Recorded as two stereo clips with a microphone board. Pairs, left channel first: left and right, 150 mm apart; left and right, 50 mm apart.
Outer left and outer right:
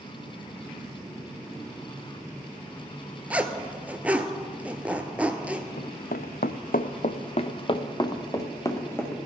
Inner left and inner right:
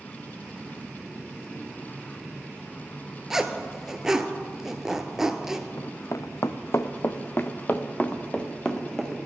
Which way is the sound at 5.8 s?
70° left (ahead or behind).